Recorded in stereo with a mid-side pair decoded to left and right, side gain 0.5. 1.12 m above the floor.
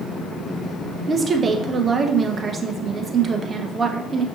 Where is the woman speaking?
35° right, 0.7 m.